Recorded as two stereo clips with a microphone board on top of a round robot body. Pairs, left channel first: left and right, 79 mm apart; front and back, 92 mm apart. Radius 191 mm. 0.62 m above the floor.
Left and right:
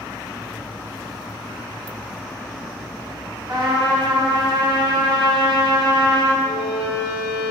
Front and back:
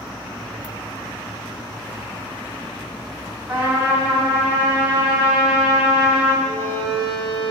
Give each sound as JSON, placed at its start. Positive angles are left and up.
{"t": 3.5, "sound": "a trumpet", "azimuth_deg": -105, "distance_m": 2.5}
{"t": 6.4, "sound": "a violin", "azimuth_deg": -140, "distance_m": 1.3}